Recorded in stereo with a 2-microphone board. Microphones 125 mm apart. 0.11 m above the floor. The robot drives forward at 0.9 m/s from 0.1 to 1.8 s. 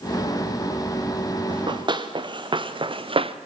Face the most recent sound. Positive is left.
turn(degrees=-50)  # may be behind; listen again after turning